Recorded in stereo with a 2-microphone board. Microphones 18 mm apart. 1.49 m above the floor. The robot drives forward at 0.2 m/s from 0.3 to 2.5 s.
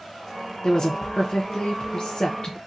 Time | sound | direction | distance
0.6 | a woman speaking | 45° left (ahead or behind) | 0.5 m